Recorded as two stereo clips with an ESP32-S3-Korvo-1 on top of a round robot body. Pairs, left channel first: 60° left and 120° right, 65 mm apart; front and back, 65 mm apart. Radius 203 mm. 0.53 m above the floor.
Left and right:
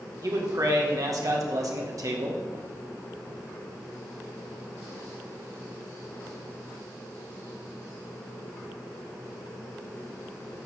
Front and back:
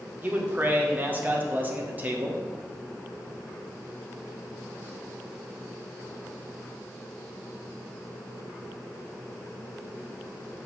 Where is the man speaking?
120° right, 1.4 m.